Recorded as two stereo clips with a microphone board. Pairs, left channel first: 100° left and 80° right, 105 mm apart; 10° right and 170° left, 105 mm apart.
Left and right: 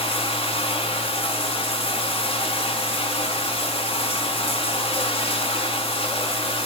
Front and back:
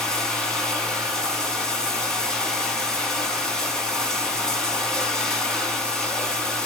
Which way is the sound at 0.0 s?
70° left.